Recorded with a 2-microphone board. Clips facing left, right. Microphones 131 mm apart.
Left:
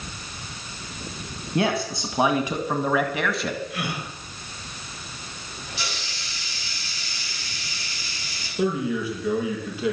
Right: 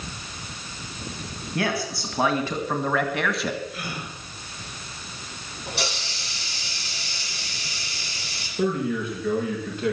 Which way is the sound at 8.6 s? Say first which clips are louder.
Even; 5° left (ahead or behind).